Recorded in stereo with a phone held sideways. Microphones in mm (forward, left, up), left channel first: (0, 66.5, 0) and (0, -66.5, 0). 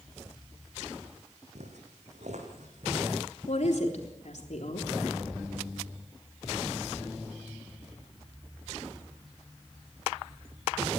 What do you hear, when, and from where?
1.6 s footsteps: 70° right (ahead or behind), 3.5 m; by 3.1 s 65° right (ahead or behind), 4.5 m
3.5 s a woman speaking: 65° left (ahead or behind), 3.5 m